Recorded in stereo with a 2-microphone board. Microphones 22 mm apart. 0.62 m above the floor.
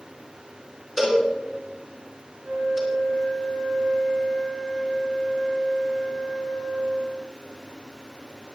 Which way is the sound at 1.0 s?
20° right (ahead or behind).